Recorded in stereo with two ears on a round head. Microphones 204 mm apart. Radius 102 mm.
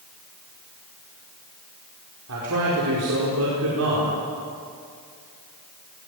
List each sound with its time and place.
2.3 s a man speaking: 70° right (ahead or behind), 5 m